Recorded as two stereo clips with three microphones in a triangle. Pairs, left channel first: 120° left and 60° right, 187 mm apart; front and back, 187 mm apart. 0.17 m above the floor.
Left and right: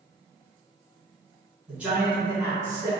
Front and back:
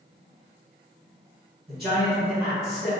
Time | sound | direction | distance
1.7 | a man speaking | 145° right | 1.7 m